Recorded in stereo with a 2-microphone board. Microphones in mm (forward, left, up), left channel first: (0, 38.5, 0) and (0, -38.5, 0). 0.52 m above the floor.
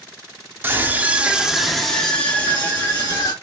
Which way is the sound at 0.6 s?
25° right (ahead or behind).